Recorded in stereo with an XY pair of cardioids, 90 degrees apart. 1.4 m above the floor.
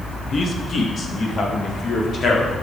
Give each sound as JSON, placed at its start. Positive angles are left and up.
{"t": 0.3, "sound": "a man speaking", "azimuth_deg": 50, "distance_m": 2.0}